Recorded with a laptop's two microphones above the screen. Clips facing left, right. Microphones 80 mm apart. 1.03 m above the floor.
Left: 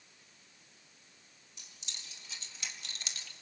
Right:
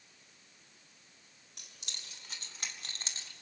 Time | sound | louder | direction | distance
1.6 | keys jangling | right 1 dB | 70° right (ahead or behind) | 2.5 m